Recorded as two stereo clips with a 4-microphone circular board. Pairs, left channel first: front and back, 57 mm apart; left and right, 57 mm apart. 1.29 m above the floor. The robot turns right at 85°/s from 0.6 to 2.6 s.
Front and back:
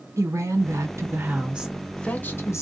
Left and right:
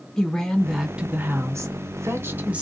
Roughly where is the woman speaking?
Behind.